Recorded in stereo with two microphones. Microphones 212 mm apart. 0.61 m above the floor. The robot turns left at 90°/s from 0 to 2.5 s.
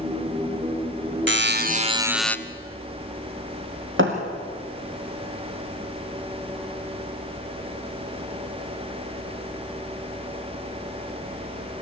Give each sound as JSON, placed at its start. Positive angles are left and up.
{"t": 1.3, "sound": "a buzzer", "azimuth_deg": -95, "distance_m": 0.8}
{"t": 4.0, "sound": "a thud", "side_deg": -65, "distance_m": 3.5}